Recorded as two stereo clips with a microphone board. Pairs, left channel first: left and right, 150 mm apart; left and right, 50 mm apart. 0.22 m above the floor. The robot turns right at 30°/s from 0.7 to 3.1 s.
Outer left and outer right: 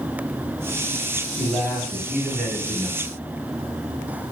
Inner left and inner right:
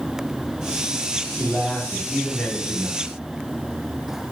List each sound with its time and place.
1.4 s a man speaking: 5° right (ahead or behind), 1.0 m; by 3.1 s 10° left (ahead or behind), 1.0 m